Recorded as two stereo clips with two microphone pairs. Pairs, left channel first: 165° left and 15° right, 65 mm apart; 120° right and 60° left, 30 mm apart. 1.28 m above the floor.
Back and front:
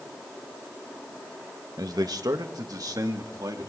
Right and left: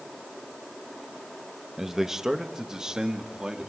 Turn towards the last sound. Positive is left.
turn(degrees=-5)